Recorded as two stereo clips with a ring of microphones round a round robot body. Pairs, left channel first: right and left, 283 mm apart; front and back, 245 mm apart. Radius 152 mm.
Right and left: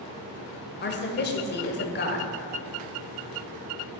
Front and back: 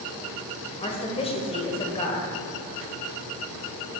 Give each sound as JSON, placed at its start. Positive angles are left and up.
{"t": 0.8, "sound": "a woman speaking", "azimuth_deg": -60, "distance_m": 1.3}